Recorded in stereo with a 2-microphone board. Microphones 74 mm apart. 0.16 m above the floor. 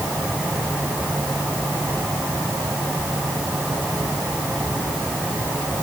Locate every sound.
Only background noise.